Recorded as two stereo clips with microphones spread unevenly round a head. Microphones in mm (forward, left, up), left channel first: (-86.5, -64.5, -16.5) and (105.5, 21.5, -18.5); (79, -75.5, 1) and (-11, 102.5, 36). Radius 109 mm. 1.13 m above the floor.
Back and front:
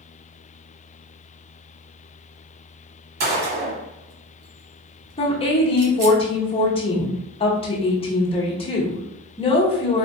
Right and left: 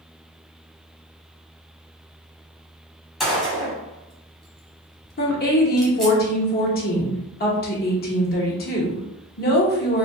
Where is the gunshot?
35° left, 1.4 m.